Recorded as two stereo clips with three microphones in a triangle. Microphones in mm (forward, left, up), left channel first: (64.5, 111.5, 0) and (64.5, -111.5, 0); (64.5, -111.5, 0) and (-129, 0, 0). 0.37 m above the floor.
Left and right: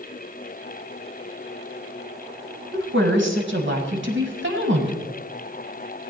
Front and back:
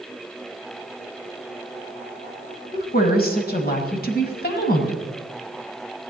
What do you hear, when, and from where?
2.7 s a woman speaking: 70° right, 1.9 m